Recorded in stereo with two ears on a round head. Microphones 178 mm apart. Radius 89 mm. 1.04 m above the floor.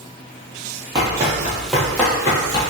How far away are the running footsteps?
About 1.1 m.